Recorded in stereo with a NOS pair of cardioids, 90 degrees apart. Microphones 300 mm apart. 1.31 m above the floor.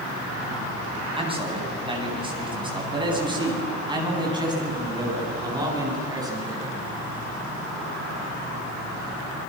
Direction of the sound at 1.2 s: 20° right.